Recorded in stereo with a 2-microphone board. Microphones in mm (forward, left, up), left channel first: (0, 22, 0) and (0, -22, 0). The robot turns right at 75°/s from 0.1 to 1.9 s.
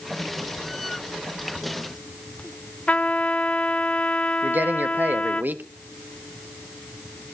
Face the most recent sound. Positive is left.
turn(degrees=-50)  # may be behind; listen again after turning